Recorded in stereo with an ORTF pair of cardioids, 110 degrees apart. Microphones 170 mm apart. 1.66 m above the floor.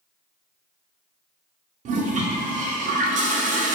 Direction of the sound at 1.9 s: 55° right.